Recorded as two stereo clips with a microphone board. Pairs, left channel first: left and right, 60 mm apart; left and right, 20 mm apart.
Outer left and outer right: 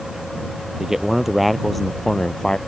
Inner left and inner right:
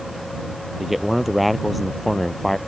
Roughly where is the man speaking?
Centre.